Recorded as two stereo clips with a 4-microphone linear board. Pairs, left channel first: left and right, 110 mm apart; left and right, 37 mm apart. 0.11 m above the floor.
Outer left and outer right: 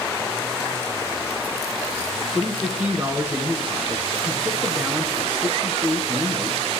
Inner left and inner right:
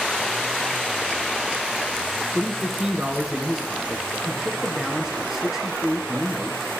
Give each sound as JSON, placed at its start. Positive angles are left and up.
{"t": 2.3, "sound": "a man speaking", "side_deg": -15, "distance_m": 1.1}